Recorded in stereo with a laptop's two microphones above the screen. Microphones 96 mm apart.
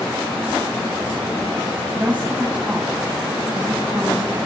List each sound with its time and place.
1.9 s a woman speaking: 20° right (ahead or behind), 8 m